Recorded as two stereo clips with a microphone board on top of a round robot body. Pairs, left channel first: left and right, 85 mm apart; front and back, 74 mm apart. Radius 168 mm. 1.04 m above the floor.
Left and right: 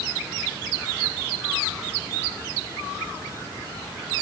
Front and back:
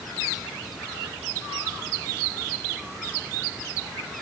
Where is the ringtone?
No ringtone in this recording.